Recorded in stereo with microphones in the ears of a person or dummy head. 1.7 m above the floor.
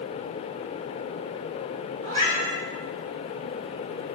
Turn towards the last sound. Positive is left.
turn(degrees=-55)  # may be behind; listen again after turning